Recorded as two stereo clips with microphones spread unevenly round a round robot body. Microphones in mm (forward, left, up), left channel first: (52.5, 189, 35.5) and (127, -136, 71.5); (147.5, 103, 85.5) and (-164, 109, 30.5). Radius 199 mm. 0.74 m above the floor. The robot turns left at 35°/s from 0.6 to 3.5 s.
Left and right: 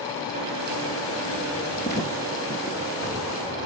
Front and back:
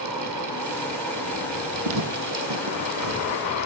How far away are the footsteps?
About 1.0 m.